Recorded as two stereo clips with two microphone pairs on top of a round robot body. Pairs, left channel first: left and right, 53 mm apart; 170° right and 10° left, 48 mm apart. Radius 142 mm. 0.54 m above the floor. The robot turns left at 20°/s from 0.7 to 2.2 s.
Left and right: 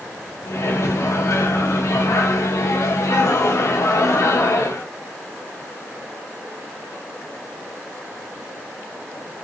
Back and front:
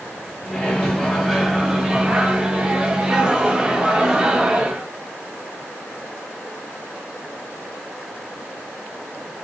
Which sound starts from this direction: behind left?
A microwave, at 0.5 s.